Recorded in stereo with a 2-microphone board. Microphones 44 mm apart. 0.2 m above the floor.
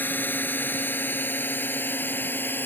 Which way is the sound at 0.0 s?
50° left (ahead or behind).